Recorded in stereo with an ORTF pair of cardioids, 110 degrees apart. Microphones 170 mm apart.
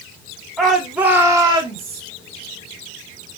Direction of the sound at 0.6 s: 5° left.